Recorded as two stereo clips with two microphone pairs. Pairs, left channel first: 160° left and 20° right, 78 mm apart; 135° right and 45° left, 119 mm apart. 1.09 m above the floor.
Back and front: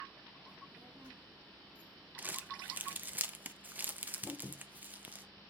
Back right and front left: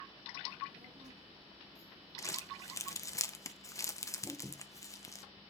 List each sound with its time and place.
0.5 s a child speaking: 50° left, 6 m; by 3.2 s 65° left, 5 m
2.2 s crumpling: 85° right, 0.7 m